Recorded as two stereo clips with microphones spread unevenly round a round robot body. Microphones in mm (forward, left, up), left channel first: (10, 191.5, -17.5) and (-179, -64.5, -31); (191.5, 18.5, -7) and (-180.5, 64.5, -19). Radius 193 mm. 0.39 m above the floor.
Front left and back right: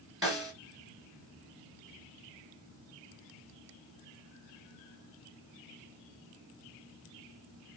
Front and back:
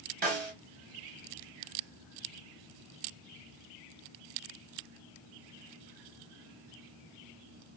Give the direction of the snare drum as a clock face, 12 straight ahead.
7 o'clock.